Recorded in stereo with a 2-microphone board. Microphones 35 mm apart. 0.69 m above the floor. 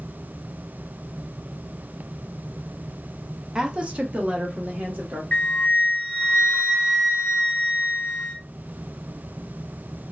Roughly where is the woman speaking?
Right.